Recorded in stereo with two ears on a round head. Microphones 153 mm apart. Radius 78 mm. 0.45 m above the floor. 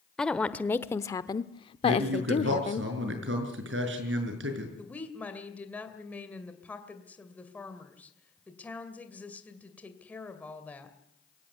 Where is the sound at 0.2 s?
5° left (ahead or behind), 1.1 m; by 2.8 s 40° left (ahead or behind), 1.0 m.